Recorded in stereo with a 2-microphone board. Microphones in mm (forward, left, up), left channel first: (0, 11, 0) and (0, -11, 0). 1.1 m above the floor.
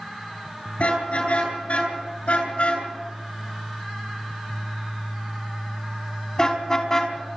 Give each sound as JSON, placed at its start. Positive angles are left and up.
{"t": 0.8, "sound": "a car horn", "side_deg": 70, "distance_m": 8.5}